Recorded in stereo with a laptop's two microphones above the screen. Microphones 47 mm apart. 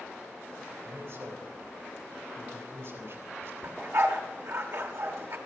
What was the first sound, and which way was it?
A man speaking, 65° right (ahead or behind).